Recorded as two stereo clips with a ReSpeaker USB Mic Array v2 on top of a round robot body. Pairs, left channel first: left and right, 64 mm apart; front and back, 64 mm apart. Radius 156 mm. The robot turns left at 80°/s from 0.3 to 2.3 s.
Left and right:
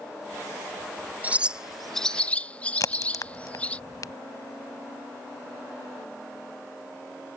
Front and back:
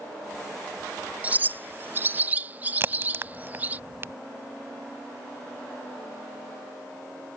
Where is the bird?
130° right; by 3.8 s 145° left.